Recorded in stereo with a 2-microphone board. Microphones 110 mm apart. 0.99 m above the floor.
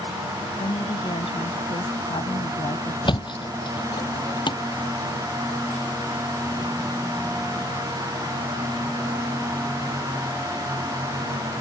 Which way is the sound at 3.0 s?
45° left (ahead or behind).